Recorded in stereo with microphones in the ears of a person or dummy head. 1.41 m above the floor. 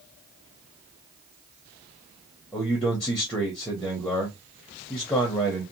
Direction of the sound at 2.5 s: 10° left (ahead or behind).